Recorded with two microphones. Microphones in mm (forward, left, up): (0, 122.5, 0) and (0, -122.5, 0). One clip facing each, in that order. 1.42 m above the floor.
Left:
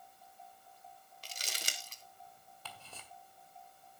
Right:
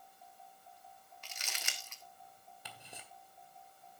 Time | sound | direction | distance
1.2 | crumpling | 40° left (ahead or behind) | 1.3 m
2.6 | ticking | 15° right (ahead or behind) | 1.8 m